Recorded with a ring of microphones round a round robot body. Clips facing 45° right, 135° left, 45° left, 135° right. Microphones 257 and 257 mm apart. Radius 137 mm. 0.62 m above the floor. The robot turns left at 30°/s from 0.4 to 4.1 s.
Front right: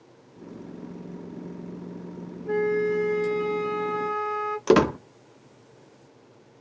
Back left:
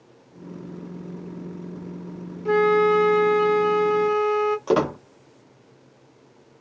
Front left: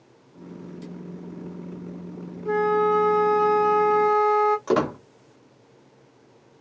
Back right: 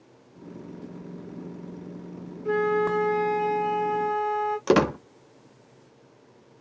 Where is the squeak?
95° right, 0.5 m.